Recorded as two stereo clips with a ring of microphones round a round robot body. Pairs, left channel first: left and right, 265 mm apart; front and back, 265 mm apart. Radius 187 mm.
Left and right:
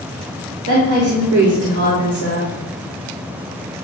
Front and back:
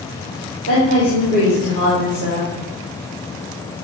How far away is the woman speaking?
About 3.5 m.